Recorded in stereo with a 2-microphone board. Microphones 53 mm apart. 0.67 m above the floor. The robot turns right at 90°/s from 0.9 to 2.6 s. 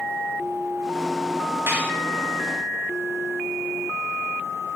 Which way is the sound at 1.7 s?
45° right (ahead or behind).